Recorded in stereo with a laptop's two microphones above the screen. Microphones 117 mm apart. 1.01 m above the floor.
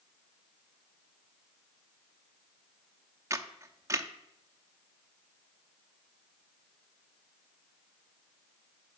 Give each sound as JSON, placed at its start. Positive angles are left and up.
{"t": 3.3, "sound": "a camera shutter", "side_deg": -25, "distance_m": 0.6}